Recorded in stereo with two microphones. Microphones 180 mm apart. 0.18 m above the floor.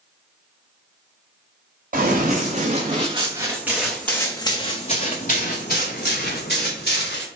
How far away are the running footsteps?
About 1.3 m.